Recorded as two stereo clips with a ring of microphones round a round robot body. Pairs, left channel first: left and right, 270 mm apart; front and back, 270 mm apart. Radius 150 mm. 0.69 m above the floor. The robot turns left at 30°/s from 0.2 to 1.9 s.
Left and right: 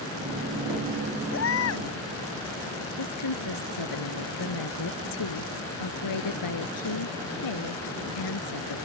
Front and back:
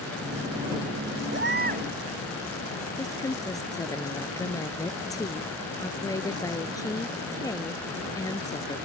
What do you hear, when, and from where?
1.3 s a baby crying: 135° left; by 1.9 s 115° left
3.0 s a woman speaking: 80° left